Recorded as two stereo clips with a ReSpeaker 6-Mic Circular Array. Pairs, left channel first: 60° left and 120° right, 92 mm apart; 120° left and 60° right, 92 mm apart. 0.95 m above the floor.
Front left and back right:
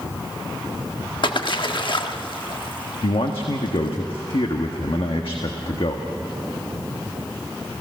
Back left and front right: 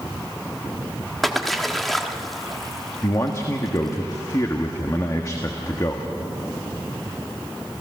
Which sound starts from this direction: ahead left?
A splash, at 1.2 s.